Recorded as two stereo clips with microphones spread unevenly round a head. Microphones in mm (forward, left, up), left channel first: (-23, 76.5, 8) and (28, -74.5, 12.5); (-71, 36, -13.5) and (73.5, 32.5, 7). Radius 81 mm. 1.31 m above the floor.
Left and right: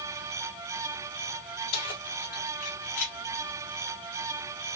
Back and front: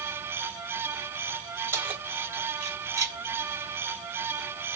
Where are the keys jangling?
70° left, 2.5 m; by 3.2 s 65° left, 1.4 m.